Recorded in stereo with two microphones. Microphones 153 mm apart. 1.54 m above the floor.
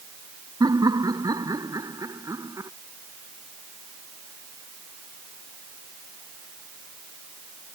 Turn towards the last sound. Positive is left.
turn(degrees=-20)  # may be behind; listen again after turning